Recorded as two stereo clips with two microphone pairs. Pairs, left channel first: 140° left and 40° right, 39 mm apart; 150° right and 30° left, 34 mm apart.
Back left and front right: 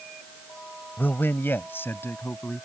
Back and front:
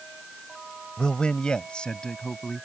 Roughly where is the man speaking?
Behind left.